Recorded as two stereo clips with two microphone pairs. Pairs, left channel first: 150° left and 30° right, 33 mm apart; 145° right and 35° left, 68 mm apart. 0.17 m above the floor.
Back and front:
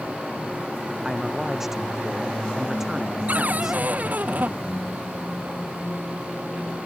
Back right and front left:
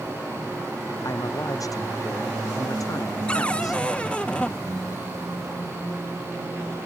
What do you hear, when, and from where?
1.0 s a man speaking: 110° right
3.3 s a cupboard door: 70° right